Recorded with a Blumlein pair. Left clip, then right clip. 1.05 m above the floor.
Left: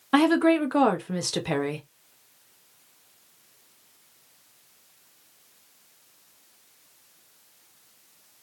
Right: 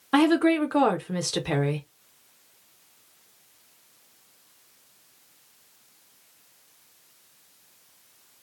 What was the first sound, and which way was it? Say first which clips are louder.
A woman speaking: left 1 dB; straight ahead.